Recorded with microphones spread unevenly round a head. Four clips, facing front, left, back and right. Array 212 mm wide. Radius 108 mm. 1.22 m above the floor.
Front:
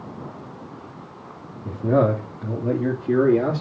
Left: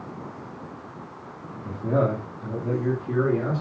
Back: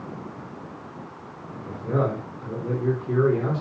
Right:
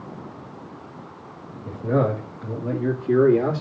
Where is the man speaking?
Straight ahead, 2.5 m; by 3.6 s 25° right, 3 m.